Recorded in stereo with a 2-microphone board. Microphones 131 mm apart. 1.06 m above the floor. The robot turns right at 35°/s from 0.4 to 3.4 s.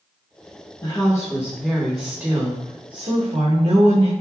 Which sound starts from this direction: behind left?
A woman speaking, at 0.8 s.